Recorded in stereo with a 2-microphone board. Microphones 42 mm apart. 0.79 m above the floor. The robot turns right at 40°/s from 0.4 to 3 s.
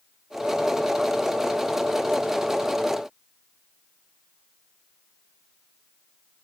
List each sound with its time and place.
Only background noise.